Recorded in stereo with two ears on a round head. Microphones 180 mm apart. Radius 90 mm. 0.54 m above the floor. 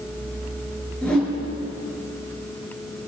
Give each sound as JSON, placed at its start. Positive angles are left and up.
{"t": 1.0, "sound": "a whoosh", "side_deg": 5, "distance_m": 4.5}